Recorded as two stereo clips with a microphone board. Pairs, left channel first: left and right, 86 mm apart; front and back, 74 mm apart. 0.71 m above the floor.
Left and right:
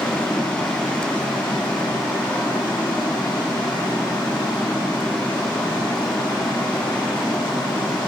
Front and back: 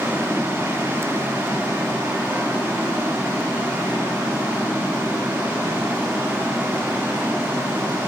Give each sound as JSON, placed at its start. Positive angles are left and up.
{"t": 0.0, "sound": "running water", "azimuth_deg": 115, "distance_m": 3.5}